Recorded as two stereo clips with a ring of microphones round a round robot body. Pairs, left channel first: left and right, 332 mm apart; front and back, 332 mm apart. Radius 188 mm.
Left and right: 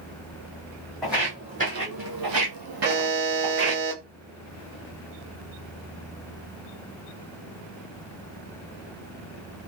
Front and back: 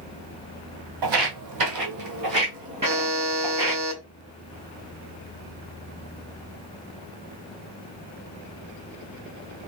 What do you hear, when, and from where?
1.0 s footsteps: straight behind, 0.9 m; by 3.8 s 90° right, 1.4 m
2.8 s a buzzer: 140° right, 2 m